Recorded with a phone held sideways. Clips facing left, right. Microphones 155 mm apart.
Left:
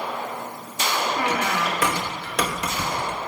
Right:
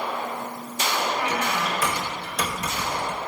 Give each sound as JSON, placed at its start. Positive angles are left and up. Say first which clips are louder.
{"t": 1.2, "sound": "a squeak", "louder": "left 2 dB", "side_deg": 70, "distance_m": 0.9}